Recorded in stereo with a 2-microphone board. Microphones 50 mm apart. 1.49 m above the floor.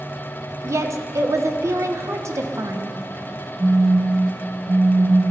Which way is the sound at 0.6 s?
70° right (ahead or behind).